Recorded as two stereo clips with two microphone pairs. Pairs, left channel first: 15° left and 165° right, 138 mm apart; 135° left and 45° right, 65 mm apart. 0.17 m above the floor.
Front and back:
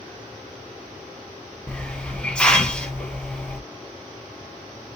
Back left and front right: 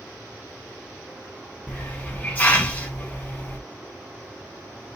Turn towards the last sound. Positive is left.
turn(degrees=90)